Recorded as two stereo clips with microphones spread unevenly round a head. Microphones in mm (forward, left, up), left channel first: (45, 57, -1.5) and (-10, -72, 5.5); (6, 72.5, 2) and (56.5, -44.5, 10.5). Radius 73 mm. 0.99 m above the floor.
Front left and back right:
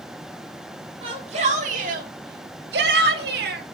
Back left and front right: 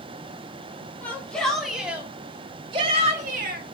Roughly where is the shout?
Behind.